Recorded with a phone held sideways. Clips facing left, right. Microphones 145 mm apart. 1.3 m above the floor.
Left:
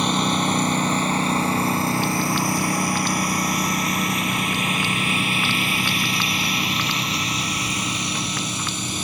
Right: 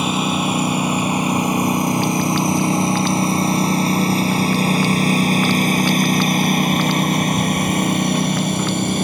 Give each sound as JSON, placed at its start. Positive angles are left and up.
{"t": 0.0, "sound": "a lawn mower", "side_deg": -5}